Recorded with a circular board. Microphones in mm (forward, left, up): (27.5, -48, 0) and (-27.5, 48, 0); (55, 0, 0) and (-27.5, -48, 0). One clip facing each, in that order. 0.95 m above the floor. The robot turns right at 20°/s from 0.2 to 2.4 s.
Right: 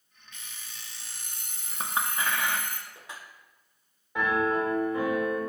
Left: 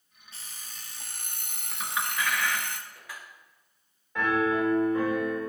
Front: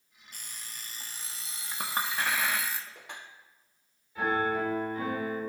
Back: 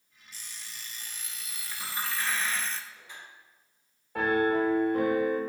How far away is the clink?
About 1.2 m.